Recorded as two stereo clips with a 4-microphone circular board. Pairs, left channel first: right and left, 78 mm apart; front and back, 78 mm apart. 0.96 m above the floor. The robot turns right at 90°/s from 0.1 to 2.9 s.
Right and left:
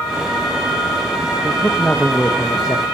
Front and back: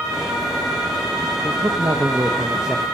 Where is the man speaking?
145° left, 1.0 m; by 2.9 s 85° right, 1.0 m.